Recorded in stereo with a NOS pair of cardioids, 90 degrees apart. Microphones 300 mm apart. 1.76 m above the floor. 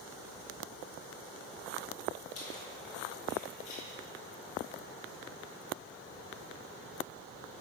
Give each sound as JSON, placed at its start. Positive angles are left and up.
{"t": 2.4, "sound": "keys jangling", "azimuth_deg": 55, "distance_m": 3.0}